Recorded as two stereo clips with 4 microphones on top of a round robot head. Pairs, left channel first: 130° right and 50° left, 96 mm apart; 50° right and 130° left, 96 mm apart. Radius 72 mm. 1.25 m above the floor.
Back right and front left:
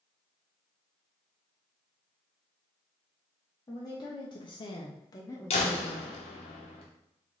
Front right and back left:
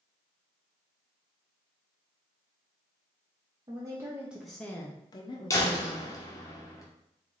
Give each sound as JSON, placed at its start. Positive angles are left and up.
{"t": 3.7, "sound": "a woman speaking", "azimuth_deg": 180, "distance_m": 0.8}
{"t": 5.5, "sound": "a door slam", "azimuth_deg": -105, "distance_m": 0.7}